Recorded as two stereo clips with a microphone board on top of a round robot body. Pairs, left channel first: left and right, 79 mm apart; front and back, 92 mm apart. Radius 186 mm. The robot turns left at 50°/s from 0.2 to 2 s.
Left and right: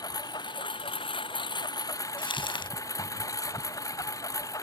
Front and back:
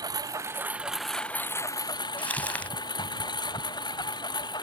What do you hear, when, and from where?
0.0 s a lawn mower: 130° left; by 4.6 s 40° left
2.2 s crumpling: 75° left